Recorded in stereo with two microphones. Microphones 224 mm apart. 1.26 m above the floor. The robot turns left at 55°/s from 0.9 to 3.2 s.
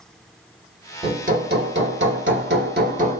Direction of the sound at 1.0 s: 30° right.